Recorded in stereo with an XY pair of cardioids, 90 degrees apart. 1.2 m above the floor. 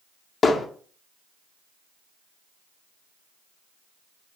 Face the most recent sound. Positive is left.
turn(degrees=50)